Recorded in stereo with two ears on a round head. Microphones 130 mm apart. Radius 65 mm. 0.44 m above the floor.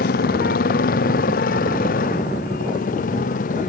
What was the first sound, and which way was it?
A motorcycle, 70° left (ahead or behind).